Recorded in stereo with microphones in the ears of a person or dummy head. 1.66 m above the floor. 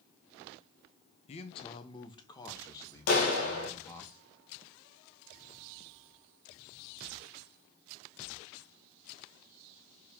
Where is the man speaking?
35° left (ahead or behind), 0.8 m; by 4.1 s 15° left (ahead or behind), 2.5 m.